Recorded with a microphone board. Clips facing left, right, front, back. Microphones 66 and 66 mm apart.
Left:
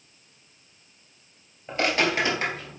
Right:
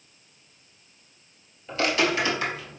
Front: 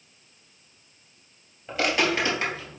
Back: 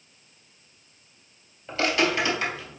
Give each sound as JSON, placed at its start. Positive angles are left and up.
{"t": 1.7, "sound": "footsteps", "azimuth_deg": 60, "distance_m": 1.8}